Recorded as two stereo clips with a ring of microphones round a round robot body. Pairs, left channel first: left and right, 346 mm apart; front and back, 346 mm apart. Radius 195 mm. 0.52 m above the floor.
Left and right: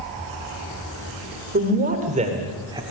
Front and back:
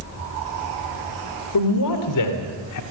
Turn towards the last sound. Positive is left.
turn(degrees=-10)